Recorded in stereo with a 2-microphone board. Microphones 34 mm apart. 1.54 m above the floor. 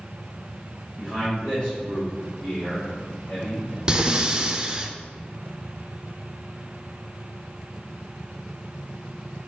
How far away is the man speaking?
About 2.5 m.